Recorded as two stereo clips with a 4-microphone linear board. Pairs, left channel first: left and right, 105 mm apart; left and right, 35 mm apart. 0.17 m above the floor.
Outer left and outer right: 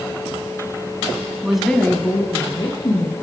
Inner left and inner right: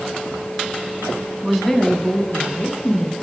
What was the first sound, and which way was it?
A woman speaking, 10° right (ahead or behind).